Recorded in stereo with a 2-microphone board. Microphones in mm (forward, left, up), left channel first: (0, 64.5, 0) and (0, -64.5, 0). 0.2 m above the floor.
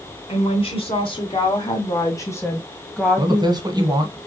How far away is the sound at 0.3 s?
About 2.5 m.